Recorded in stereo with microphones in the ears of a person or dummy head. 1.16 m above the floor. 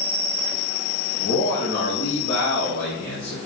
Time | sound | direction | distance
1.2 | a man speaking | 55° left (ahead or behind) | 1.2 m